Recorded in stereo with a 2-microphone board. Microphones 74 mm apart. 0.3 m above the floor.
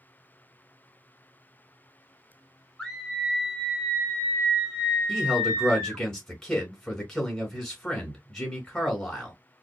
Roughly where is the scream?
Centre.